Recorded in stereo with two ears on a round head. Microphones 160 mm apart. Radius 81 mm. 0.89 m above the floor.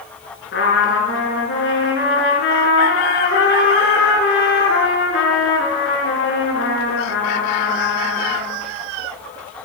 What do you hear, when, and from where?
0.5 s a trumpet: 65° left (ahead or behind), 4 m